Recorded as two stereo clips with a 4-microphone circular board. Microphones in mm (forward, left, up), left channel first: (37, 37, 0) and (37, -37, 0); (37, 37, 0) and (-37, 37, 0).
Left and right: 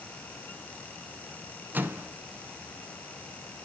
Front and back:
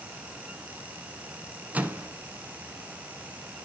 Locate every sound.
1.7 s a microwave: 130° right, 1.0 m